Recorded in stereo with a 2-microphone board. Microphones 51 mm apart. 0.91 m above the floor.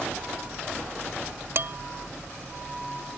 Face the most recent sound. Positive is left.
turn(degrees=-60)  # may be behind; listen again after turning